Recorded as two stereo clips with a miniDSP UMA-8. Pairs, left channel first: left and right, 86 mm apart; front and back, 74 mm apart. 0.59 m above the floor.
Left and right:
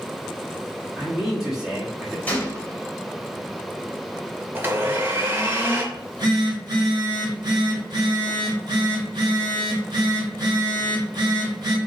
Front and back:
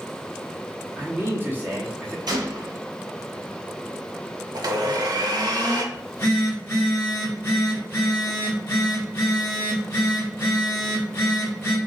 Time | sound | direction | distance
1.0 | a man speaking | 165° right | 1.2 m
2.3 | a gunshot | 160° left | 1.0 m
4.5 | a blender | 155° right | 0.7 m
5.9 | a phone buzzing | 55° right | 1.7 m